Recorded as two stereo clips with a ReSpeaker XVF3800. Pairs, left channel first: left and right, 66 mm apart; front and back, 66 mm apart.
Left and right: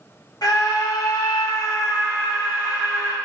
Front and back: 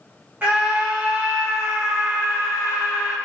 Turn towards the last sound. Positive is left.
turn(degrees=115)